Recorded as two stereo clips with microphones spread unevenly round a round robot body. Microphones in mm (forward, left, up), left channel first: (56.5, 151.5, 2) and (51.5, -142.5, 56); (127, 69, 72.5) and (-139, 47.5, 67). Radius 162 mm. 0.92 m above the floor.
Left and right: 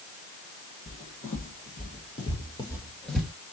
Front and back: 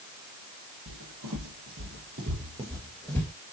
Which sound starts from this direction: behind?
Footsteps, at 0.9 s.